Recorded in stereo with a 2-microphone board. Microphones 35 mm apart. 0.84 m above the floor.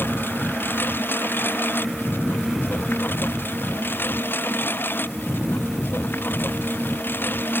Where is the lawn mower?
90° left; by 7.6 s 85° left.